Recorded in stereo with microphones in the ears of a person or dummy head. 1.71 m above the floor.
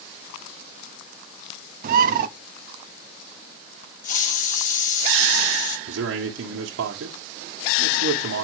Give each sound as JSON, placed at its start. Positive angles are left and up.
{"t": 1.8, "sound": "a bird", "side_deg": -50, "distance_m": 0.8}
{"t": 4.0, "sound": "a hiss", "side_deg": 50, "distance_m": 1.9}
{"t": 5.9, "sound": "a man speaking", "side_deg": -75, "distance_m": 1.6}